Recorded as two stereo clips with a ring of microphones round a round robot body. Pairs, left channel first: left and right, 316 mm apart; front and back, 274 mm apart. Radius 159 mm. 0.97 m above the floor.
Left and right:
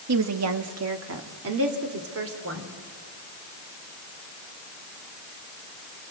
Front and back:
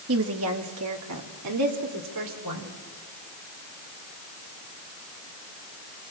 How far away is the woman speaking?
About 1.4 m.